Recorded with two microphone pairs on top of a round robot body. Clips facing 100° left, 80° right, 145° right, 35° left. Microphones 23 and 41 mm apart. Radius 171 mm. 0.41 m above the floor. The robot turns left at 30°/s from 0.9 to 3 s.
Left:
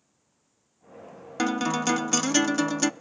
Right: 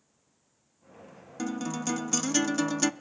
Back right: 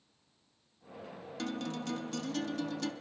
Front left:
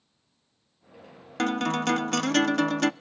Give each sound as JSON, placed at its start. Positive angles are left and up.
{"t": 1.4, "sound": "a guitar", "azimuth_deg": 60, "distance_m": 0.5}